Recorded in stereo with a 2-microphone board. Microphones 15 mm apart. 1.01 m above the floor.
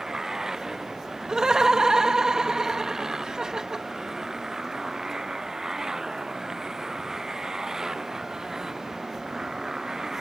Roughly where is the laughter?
Right.